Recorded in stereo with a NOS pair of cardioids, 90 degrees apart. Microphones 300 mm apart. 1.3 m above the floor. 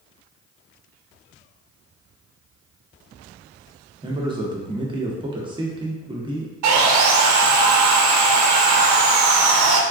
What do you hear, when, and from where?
4.0 s a man speaking: 15° right, 0.9 m
6.6 s sawing: 70° right, 0.6 m